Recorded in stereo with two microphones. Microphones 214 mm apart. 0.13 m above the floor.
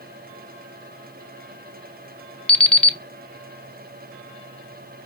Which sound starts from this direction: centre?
An alarm clock, at 2.5 s.